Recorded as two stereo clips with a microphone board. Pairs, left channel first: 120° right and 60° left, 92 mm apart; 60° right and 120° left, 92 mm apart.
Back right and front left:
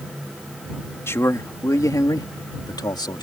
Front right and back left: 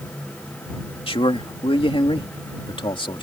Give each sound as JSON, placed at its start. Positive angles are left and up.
{"t": 1.1, "sound": "a man speaking", "azimuth_deg": -60}